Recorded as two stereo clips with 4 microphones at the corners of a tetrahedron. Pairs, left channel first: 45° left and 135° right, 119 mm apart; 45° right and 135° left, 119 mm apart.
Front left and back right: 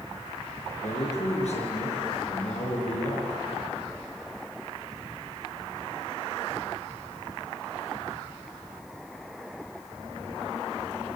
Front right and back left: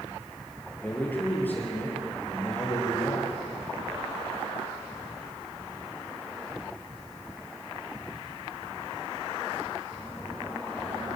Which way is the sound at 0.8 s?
30° left.